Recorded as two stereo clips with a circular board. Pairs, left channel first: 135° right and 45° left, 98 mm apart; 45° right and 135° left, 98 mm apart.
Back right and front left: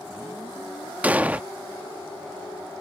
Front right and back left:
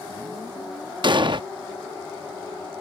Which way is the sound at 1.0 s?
115° left.